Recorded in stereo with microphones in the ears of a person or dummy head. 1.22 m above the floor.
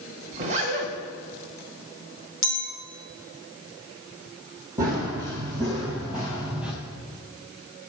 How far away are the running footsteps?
About 1.4 m.